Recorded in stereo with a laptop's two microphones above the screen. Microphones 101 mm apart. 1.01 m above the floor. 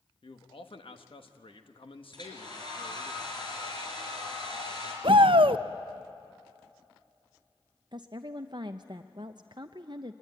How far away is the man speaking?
About 1.2 m.